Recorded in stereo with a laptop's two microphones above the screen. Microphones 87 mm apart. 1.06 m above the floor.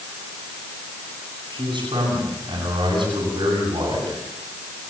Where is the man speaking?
60° right (ahead or behind), 9 m.